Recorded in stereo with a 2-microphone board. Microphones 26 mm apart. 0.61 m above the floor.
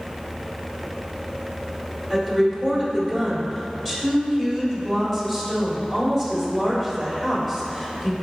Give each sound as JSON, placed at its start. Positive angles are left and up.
{"t": 2.1, "sound": "a woman speaking", "side_deg": 10, "distance_m": 2.5}